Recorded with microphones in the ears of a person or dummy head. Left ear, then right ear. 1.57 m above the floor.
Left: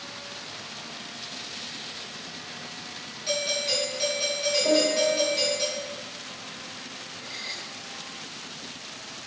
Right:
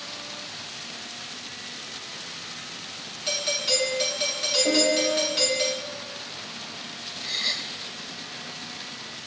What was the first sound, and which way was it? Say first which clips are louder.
A doorbell: right 2 dB; 15° right (ahead or behind).